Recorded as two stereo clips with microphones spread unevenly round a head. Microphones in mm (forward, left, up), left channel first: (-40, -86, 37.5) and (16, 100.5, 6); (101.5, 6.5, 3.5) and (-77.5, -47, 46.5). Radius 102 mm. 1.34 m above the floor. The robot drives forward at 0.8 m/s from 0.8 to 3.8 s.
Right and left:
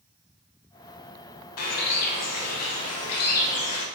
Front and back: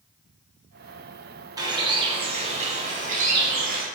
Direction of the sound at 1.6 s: 95° right.